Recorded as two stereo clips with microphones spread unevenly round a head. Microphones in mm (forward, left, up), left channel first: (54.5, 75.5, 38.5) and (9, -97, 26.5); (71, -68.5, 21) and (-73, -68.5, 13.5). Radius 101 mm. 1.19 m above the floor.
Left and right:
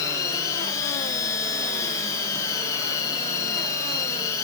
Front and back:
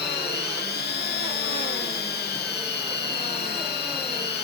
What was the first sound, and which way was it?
A machine running, 5° left.